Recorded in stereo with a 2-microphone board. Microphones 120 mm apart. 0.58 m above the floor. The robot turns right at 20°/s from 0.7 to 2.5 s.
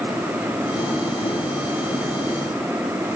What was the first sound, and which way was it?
Only background noise.